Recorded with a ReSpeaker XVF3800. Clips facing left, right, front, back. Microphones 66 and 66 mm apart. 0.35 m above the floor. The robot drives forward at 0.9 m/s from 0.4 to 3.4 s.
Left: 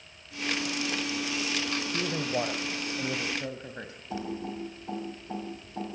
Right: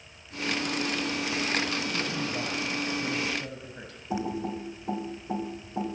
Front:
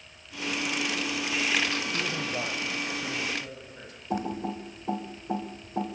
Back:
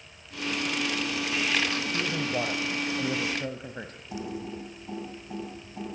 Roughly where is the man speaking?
Left.